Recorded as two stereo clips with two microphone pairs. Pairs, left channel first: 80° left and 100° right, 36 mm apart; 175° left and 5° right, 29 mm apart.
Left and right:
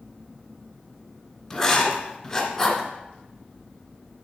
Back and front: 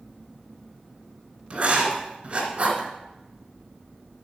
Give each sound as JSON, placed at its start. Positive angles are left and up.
{"t": 1.5, "sound": "writing", "azimuth_deg": 15, "distance_m": 1.7}